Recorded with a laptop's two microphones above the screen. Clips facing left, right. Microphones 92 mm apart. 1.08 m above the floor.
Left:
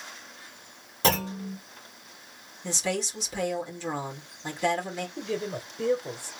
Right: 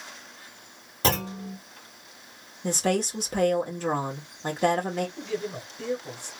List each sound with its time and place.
1.0 s a clunk: centre (ahead or behind), 1.0 m
2.6 s a woman speaking: 50° right (ahead or behind), 1.8 m
5.2 s a man speaking: 40° left (ahead or behind), 1.1 m